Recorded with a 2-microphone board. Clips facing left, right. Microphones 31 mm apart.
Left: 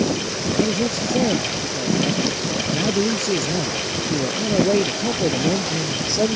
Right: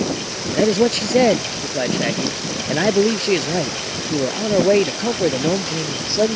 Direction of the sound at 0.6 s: 65° right (ahead or behind).